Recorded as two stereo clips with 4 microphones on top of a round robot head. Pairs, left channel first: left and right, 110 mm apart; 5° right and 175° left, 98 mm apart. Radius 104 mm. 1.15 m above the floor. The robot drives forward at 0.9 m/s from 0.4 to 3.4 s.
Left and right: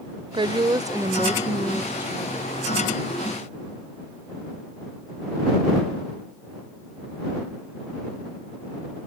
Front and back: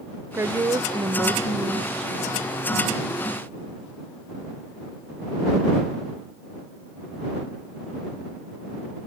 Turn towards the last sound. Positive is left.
turn(degrees=-170)